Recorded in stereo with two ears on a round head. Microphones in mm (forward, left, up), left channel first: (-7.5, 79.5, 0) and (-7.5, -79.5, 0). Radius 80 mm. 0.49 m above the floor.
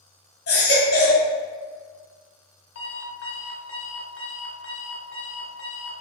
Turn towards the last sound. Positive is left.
turn(degrees=75)  # may be behind; listen again after turning